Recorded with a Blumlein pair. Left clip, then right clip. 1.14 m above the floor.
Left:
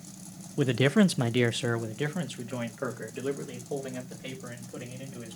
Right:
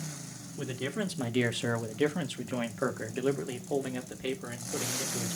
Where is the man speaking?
60° left, 0.6 m; by 5.4 s 20° right, 3.5 m.